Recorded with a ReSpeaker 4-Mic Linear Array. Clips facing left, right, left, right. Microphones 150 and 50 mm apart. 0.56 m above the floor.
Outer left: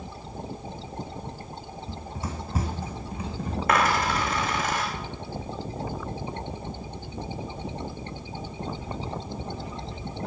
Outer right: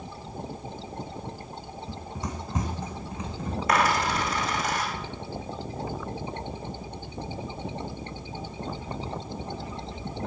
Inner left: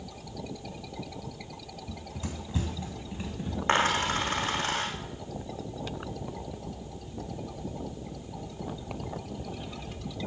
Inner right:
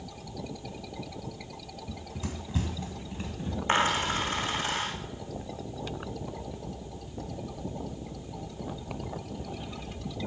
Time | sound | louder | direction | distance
1.9 | running footsteps | even, inner right 1 dB | centre (ahead or behind) | 2 m
3.7 | a dropped coin | outer left 1 dB, inner left 1 dB | 55° left (ahead or behind) | 6 m